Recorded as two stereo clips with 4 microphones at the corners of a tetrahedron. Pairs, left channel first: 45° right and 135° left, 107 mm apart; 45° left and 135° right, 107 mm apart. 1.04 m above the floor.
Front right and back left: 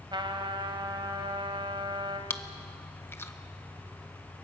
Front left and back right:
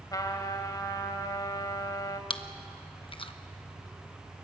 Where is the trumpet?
95° left, 1.8 m.